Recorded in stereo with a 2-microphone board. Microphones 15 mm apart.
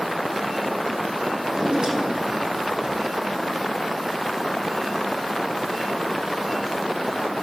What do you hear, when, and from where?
1.4 s a drawer: 60° right (ahead or behind), 5.5 m